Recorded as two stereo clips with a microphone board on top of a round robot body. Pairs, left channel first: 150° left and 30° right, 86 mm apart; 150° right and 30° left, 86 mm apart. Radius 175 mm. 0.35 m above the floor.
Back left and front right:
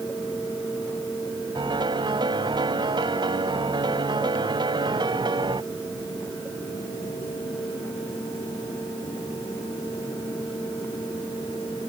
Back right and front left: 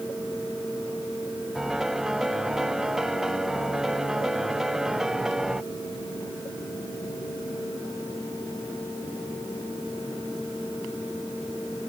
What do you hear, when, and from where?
1.6 s a piano: 55° right